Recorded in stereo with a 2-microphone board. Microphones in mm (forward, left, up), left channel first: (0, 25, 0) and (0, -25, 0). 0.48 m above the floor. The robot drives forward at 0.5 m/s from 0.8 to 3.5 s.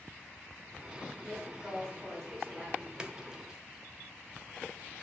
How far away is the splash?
About 0.5 m.